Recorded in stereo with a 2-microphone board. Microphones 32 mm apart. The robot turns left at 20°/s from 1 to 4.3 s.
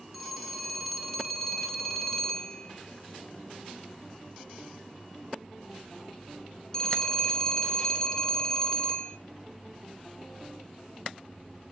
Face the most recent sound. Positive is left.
turn(degrees=15)  # may be behind; listen again after turning